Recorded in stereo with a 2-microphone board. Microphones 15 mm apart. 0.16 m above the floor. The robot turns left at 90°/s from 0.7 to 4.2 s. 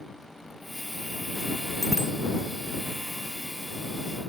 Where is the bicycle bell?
10° left (ahead or behind); by 2.1 s 35° left (ahead or behind).